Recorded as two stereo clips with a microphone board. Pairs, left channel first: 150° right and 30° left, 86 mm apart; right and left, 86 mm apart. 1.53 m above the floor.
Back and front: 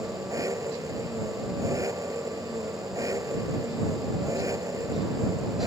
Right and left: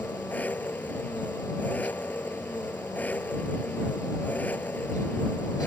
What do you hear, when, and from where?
0.0 s an engine running: 20° right